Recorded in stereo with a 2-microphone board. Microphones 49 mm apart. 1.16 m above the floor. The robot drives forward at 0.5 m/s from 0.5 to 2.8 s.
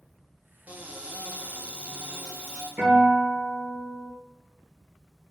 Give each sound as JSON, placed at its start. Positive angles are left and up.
{"t": 0.7, "sound": "a cupboard door", "side_deg": -30, "distance_m": 0.6}
{"t": 2.8, "sound": "a guitar", "side_deg": -60, "distance_m": 1.3}